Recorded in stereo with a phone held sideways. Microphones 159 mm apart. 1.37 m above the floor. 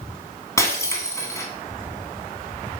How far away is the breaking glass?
About 1.7 m.